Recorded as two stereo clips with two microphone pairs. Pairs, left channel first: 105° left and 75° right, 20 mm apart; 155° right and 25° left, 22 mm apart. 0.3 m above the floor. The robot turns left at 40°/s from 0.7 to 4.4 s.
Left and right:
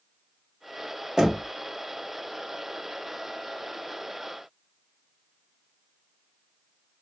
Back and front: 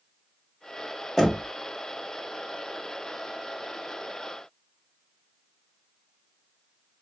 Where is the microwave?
No microwave in this recording.